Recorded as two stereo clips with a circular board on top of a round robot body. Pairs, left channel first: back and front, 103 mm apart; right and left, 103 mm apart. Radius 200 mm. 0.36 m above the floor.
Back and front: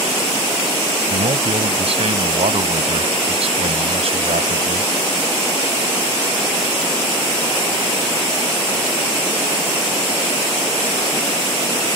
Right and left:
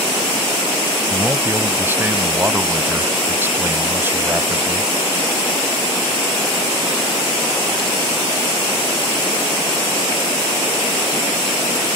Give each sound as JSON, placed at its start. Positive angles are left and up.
{"t": 1.1, "sound": "a man speaking", "azimuth_deg": 20}